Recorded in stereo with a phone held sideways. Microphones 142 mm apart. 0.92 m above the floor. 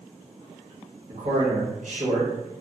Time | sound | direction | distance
1.1 | a man speaking | 60° right (ahead or behind) | 1.2 m